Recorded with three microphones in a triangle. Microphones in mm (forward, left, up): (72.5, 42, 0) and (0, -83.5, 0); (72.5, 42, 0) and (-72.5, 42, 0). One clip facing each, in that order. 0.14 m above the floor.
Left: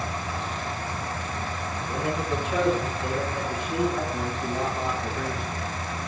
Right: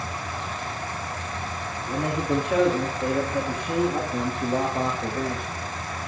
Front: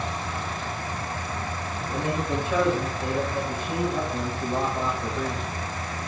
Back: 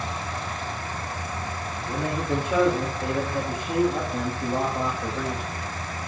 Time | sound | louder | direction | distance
1.9 | a man speaking | right 3 dB, back 1 dB | 105° right | 8 m